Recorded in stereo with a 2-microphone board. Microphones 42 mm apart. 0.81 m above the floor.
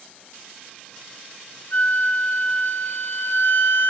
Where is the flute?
70° left (ahead or behind), 1.9 m.